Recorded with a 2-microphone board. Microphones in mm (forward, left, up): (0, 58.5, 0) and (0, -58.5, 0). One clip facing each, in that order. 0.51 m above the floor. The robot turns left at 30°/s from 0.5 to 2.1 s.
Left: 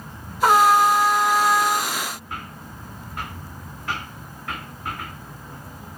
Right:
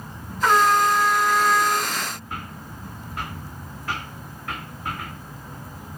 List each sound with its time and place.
0.4 s a trumpet: 40° left, 2 m; by 1.9 s straight ahead, 2 m